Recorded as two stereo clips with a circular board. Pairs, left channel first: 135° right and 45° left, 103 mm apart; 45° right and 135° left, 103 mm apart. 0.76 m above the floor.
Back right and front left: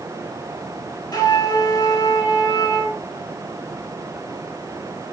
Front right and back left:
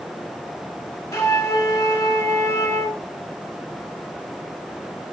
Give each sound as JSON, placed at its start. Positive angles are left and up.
{"t": 1.1, "sound": "a flute", "azimuth_deg": -95, "distance_m": 0.8}